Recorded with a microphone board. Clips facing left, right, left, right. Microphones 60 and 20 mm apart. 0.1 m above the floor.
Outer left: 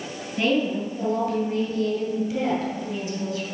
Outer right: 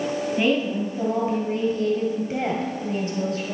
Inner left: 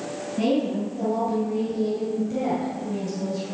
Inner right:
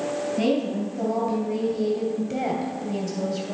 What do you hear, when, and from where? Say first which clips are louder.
0.4 s a woman speaking: outer left 1 dB, inner left 2 dB; 10° right (ahead or behind), 1.9 m; by 3.5 s 50° right (ahead or behind), 2.5 m